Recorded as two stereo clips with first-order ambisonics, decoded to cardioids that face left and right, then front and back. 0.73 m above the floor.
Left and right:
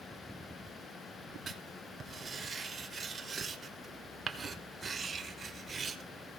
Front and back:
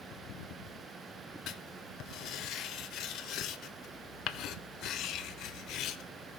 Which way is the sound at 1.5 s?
25° right.